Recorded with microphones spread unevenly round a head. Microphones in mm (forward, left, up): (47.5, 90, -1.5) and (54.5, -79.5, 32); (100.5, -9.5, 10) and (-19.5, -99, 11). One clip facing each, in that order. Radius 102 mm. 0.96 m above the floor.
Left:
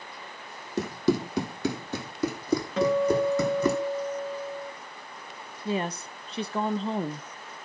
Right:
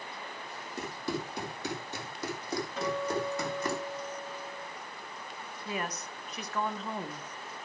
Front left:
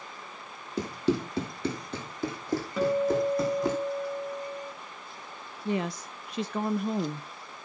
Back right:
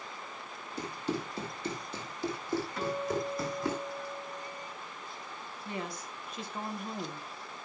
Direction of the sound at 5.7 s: 40° left.